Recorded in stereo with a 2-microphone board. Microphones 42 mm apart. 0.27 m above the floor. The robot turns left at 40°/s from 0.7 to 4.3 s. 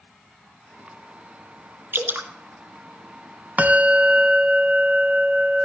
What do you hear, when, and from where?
1.9 s dripping: 65° right (ahead or behind), 1.9 m; by 2.3 s 50° right (ahead or behind), 1.9 m
3.6 s a bell: 40° right (ahead or behind), 1.0 m; by 5.7 s 20° right (ahead or behind), 1.0 m